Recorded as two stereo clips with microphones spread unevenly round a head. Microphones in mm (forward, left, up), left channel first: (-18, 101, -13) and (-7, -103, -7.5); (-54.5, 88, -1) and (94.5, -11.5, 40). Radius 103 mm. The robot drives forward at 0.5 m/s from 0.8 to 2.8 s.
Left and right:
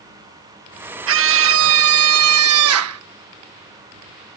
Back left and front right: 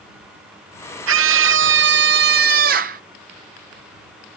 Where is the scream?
60° right; by 3.0 s 80° right.